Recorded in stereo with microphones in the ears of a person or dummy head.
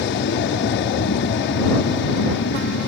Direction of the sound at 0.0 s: 60° left (ahead or behind).